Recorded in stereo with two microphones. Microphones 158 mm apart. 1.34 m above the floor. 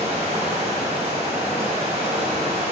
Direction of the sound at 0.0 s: 45° right (ahead or behind).